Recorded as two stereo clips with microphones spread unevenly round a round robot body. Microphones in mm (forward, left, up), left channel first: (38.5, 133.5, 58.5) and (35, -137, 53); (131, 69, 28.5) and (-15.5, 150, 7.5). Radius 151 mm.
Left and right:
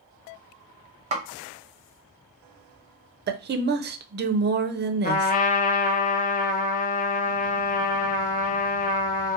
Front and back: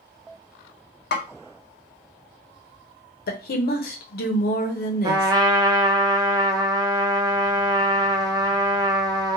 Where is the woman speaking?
45° right, 0.6 m.